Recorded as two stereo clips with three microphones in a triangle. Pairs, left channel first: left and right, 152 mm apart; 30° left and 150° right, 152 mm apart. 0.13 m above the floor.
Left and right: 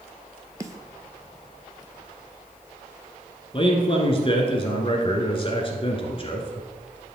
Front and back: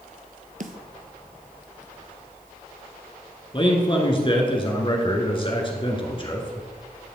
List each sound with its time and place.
0.6 s a snare drum: 160° right, 0.8 m
3.5 s a man speaking: 60° left, 1.5 m